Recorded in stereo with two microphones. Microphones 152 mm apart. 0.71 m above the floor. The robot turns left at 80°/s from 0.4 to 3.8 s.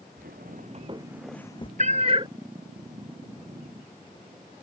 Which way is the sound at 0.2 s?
80° right.